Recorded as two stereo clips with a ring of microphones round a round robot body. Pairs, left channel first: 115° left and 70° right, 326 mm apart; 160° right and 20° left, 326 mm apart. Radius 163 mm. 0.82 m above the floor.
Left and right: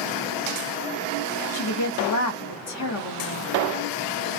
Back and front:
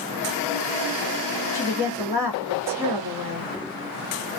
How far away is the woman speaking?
About 1.3 m.